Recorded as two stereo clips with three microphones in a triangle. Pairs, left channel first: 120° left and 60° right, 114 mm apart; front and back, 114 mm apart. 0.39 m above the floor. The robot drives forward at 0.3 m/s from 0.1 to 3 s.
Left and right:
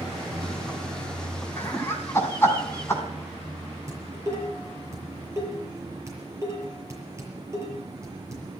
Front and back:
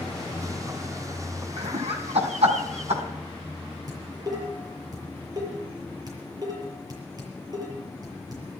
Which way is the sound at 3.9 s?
125° right.